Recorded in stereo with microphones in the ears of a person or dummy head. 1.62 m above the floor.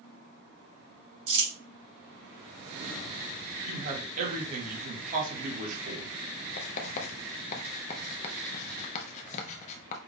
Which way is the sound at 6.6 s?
45° left (ahead or behind).